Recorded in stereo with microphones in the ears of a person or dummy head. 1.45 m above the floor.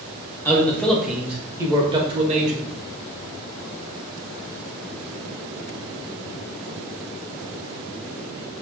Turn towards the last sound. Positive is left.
turn(degrees=-45)  # may be behind; listen again after turning